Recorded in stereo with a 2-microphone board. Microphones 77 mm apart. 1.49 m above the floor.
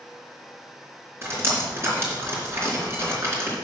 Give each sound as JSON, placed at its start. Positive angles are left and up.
{"t": 1.2, "sound": "dripping", "side_deg": -35, "distance_m": 4.0}